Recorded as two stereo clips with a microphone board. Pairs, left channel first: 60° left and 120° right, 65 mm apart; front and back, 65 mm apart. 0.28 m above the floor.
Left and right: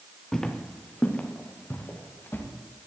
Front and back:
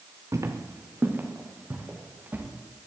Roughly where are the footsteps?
Behind left.